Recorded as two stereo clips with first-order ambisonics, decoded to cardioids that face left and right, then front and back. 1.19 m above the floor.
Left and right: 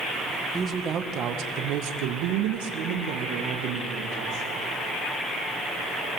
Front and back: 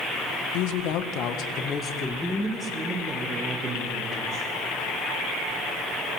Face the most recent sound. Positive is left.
turn(degrees=-115)